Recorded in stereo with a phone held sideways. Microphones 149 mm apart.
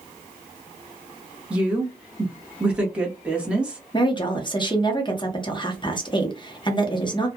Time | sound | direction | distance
1.5 | a woman speaking | 10° right (ahead or behind) | 1.1 m
3.9 | a woman speaking | 30° left (ahead or behind) | 0.8 m